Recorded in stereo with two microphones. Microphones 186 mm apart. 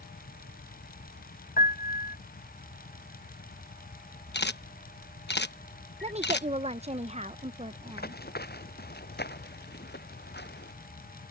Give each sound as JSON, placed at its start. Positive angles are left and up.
{"t": 1.6, "sound": "a piano", "side_deg": 55}
{"t": 4.3, "sound": "a camera shutter", "side_deg": 65}
{"t": 6.0, "sound": "a woman speaking", "side_deg": -35}
{"t": 7.9, "sound": "running footsteps", "side_deg": 60}